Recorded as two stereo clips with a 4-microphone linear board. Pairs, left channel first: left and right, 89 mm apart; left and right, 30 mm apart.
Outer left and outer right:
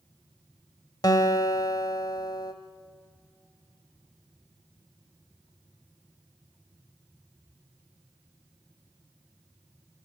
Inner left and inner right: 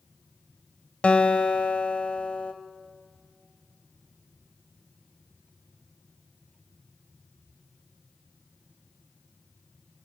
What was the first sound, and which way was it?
A guitar, 45° left (ahead or behind).